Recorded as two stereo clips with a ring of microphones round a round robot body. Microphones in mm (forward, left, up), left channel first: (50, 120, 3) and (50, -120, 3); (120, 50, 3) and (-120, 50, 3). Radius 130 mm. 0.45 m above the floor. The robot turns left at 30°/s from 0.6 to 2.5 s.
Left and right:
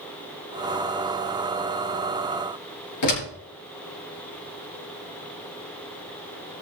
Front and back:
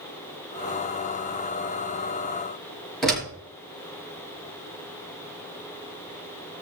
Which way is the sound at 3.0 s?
90° left.